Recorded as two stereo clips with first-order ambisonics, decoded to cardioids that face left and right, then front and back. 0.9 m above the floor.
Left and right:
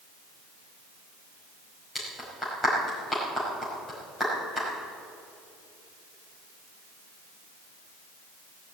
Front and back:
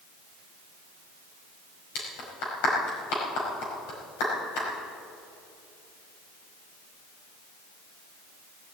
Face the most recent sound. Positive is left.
turn(degrees=5)